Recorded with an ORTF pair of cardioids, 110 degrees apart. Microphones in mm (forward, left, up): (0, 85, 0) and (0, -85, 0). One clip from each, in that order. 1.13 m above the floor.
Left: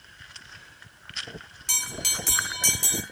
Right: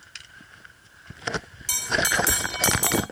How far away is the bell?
About 2.5 m.